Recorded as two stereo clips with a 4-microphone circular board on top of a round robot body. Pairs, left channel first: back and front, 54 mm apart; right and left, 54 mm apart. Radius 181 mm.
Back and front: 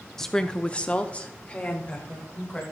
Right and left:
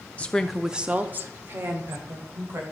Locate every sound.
0.2 s a woman speaking: 110° right, 0.9 m; by 2.6 s 115° left, 2.5 m